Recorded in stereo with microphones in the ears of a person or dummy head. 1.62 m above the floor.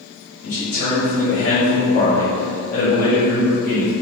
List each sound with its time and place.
0.4 s a man speaking: 50° left (ahead or behind), 1.0 m